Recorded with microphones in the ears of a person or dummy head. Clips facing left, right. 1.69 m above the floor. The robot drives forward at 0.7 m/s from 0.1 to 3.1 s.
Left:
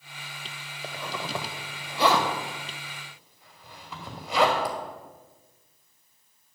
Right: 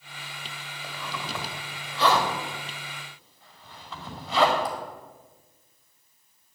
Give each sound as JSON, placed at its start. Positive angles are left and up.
{"t": 0.8, "sound": "a zipper", "side_deg": 20, "distance_m": 0.9}